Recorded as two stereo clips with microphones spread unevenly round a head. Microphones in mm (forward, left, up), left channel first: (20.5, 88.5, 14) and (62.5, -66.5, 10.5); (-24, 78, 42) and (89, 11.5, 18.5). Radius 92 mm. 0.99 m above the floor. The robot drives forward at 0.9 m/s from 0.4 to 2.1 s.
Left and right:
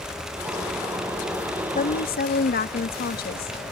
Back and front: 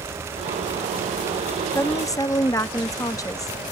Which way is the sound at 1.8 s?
70° left.